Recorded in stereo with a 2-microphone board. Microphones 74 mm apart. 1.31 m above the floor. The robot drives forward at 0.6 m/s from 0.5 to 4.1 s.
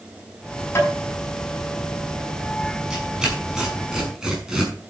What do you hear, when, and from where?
0.8 s tapping: 35° left (ahead or behind), 6 m
2.9 s tearing paper: 10° right (ahead or behind), 5.5 m